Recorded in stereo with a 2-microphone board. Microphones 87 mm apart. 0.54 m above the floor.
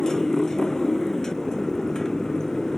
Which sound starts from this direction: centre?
A motorcycle, at 0.0 s.